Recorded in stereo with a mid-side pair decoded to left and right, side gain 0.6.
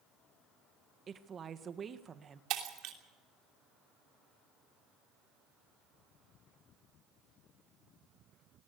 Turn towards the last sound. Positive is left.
turn(degrees=-65)